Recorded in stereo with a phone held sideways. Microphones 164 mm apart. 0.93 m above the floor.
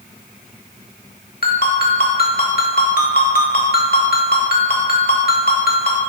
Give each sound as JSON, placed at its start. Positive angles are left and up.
{"t": 1.4, "sound": "a ringtone", "side_deg": 65, "distance_m": 1.3}